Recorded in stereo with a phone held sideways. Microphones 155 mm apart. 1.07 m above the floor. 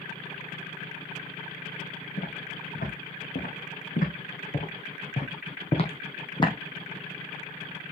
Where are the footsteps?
70° left (ahead or behind), 3.5 m; by 6.5 s 30° left (ahead or behind), 2 m.